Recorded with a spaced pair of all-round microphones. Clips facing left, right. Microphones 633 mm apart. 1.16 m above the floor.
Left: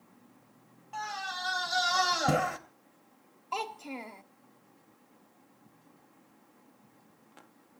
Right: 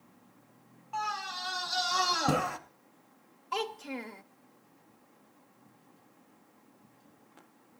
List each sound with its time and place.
0.9 s a scream: 15° left (ahead or behind), 1.9 m
3.5 s a child speaking: 45° right (ahead or behind), 0.7 m